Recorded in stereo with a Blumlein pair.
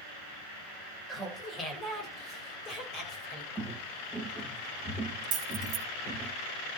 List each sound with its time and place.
1.1 s laughter: 20° left, 6 m; by 3.5 s 30° left, 6 m
3.5 s footsteps: 10° left, 5 m
5.3 s keys jangling: 40° right, 1.8 m